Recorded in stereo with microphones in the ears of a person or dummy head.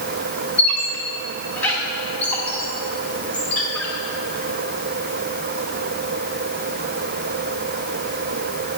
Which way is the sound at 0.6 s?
10° left (ahead or behind).